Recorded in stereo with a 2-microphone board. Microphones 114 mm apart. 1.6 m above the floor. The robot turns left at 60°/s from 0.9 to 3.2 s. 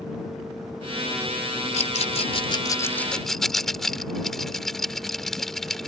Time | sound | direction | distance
1.7 | a rattle | 80° left | ?